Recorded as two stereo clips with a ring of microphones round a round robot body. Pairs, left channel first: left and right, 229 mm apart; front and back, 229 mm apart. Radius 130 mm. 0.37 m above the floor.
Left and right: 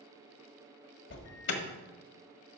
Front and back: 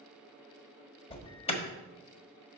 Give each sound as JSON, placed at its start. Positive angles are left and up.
{"t": 1.1, "sound": "an alarm", "azimuth_deg": 65, "distance_m": 1.5}